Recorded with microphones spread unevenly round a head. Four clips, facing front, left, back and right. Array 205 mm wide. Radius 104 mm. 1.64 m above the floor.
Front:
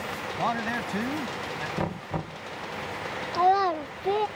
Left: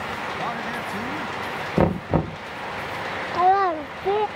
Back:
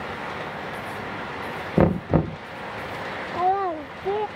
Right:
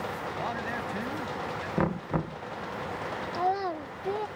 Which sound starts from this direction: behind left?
Knocking, at 1.8 s.